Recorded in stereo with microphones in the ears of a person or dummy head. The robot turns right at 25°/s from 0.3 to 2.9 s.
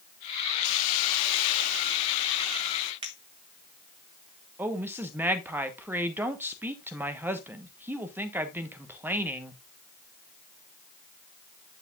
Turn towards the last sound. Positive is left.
turn(degrees=-15)  # may be behind; listen again after turning